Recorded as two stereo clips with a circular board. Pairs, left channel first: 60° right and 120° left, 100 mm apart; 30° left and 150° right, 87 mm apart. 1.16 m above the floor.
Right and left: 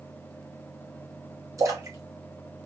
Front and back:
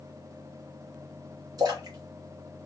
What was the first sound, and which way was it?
A splash, 175° left.